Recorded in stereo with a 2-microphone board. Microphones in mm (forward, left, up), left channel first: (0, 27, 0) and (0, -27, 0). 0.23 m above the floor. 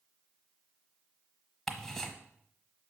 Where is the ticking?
5° left (ahead or behind), 0.9 m.